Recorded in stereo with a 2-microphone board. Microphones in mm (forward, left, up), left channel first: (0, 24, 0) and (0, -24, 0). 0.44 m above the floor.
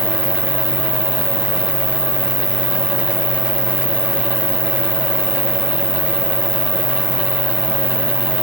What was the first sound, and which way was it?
An insect, 5° left (ahead or behind).